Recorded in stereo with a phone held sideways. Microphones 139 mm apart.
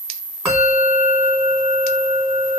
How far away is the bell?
About 3.5 m.